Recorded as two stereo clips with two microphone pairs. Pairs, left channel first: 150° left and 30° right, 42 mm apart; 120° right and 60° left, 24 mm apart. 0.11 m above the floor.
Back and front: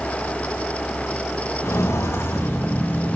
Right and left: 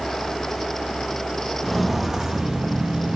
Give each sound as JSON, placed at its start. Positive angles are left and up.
{"t": 1.6, "sound": "footsteps", "azimuth_deg": 155, "distance_m": 1.5}